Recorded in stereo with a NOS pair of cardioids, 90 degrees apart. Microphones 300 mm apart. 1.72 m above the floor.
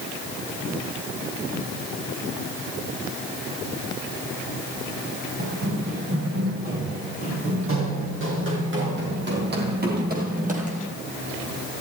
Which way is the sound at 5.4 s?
55° right.